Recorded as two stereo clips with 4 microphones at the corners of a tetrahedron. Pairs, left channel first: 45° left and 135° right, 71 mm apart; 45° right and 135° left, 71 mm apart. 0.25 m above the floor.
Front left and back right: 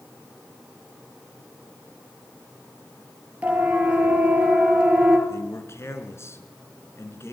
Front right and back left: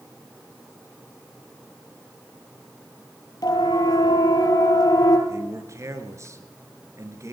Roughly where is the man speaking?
Left.